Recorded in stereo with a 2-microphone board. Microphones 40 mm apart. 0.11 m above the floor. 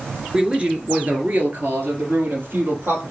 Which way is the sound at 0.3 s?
20° right (ahead or behind).